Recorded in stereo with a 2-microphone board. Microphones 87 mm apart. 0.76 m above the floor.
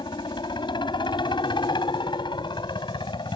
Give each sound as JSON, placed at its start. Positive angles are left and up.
{"t": 0.0, "sound": "a helicopter", "side_deg": 60}